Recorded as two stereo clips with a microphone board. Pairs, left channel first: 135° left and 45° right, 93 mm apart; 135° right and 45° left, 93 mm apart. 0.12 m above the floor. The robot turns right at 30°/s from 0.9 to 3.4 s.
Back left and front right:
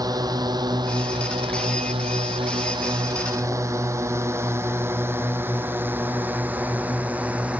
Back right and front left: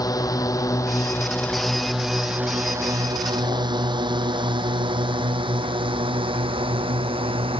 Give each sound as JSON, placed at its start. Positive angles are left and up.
{"t": 0.0, "sound": "a drone", "azimuth_deg": -90}